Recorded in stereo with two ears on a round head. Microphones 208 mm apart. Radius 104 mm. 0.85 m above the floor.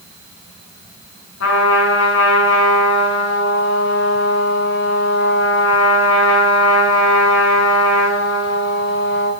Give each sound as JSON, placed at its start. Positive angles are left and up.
{"t": 1.4, "sound": "a trumpet", "side_deg": 60, "distance_m": 9.0}